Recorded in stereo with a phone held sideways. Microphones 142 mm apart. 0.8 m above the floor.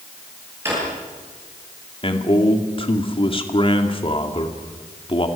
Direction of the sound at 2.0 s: 40° left (ahead or behind).